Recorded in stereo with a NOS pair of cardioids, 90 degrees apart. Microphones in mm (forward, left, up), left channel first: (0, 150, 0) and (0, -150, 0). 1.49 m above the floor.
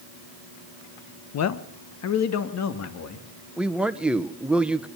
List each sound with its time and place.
1.3 s a man speaking: 60° left, 1.5 m
3.6 s a man speaking: 5° right, 1.5 m